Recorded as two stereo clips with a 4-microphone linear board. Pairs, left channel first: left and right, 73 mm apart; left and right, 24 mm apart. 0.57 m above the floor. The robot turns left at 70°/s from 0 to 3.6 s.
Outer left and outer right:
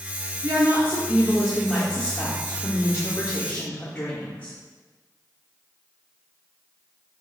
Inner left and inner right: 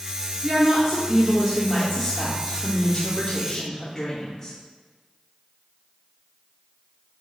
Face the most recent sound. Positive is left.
turn(degrees=40)